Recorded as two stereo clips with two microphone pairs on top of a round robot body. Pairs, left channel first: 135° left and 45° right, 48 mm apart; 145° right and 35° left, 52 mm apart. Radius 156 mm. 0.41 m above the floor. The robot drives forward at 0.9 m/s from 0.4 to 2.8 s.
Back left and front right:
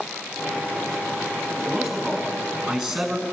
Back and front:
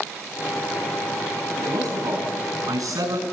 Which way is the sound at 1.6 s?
40° left.